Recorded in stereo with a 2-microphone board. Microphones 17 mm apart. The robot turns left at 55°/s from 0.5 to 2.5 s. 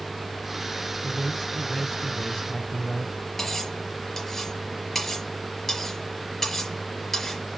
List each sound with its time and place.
1.0 s a man speaking: 150° left, 2 m; by 3.1 s 70° left, 2 m
3.4 s cutlery clinking: 20° left (ahead or behind), 4.5 m